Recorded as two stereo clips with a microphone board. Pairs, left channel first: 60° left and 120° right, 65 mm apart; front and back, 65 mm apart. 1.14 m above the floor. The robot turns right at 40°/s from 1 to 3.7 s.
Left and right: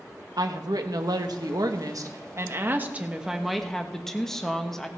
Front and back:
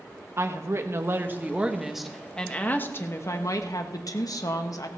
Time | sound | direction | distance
0.4 | a woman speaking | 130° right | 1.3 m